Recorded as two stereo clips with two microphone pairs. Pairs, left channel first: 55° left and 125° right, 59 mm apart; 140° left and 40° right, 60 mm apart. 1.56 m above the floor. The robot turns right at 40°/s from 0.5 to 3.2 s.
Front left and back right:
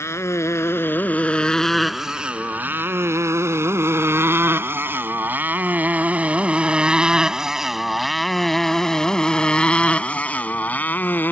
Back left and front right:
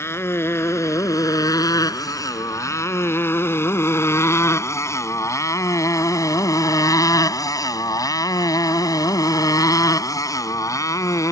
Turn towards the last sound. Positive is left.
turn(degrees=115)